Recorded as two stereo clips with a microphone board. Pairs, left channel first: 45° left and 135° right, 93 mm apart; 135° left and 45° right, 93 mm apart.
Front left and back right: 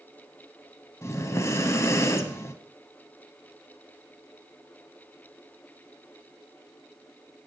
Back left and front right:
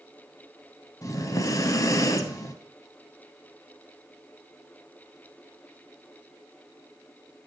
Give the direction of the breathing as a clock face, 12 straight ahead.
9 o'clock.